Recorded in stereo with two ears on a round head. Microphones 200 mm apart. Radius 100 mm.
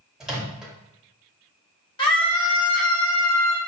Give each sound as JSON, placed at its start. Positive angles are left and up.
{"t": 0.2, "sound": "a microwave", "side_deg": 0, "distance_m": 0.8}
{"t": 2.0, "sound": "a scream", "side_deg": 20, "distance_m": 1.3}